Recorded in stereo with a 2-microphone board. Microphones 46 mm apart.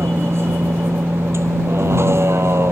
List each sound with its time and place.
0.0 s a vehicle: 60° right (ahead or behind)